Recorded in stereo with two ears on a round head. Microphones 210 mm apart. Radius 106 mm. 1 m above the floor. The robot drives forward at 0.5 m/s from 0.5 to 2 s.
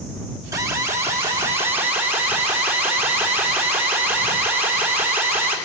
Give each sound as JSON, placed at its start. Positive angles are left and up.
{"t": 0.5, "sound": "an alarm", "side_deg": -15, "distance_m": 1.6}